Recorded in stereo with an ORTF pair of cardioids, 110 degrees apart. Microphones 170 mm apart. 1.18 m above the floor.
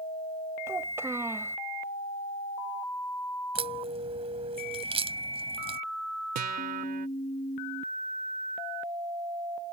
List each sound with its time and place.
0.7 s a child speaking: 15° right
3.5 s a crack: 35° right
6.3 s a guitar: 60° right